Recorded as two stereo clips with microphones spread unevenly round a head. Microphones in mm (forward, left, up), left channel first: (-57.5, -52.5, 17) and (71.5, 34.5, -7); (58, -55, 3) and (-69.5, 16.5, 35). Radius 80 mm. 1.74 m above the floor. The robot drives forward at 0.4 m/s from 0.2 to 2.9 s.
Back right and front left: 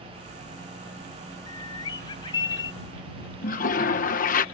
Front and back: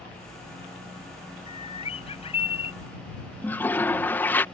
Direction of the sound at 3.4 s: 110° right.